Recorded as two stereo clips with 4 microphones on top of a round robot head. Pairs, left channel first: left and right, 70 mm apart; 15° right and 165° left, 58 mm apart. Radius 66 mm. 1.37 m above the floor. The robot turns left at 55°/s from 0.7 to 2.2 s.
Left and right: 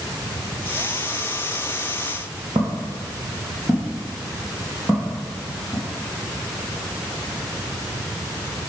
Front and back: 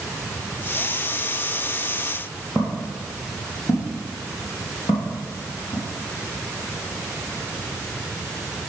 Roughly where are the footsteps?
Right.